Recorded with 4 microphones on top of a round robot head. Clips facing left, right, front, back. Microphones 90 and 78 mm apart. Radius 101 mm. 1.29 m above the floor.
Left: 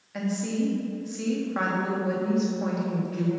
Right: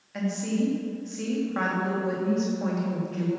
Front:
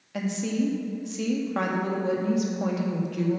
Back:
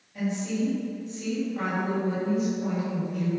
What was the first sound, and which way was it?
A woman speaking, 5° left.